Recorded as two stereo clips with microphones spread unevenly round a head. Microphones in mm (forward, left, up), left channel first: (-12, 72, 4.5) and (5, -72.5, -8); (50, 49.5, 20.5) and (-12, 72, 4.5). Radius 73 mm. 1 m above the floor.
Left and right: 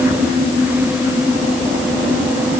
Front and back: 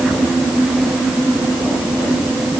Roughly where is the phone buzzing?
No phone buzzing in this recording.